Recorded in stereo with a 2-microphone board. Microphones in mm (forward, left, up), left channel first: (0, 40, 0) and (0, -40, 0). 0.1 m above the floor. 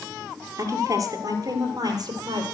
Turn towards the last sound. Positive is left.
turn(degrees=-55)  # may be behind; listen again after turning